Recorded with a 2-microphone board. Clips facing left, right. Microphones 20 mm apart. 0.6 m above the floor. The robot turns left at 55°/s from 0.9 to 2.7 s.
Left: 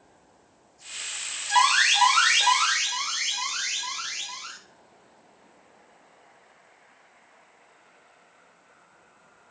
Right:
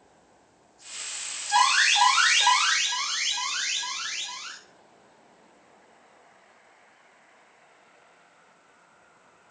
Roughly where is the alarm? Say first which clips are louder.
Left 1 dB; ahead left.